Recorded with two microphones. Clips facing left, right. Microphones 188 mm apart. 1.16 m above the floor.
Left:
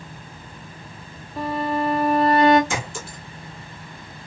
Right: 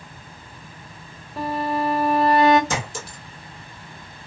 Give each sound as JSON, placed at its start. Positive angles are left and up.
{"t": 1.4, "sound": "a violin", "side_deg": 0, "distance_m": 0.8}
{"t": 2.7, "sound": "a clink", "side_deg": -40, "distance_m": 1.4}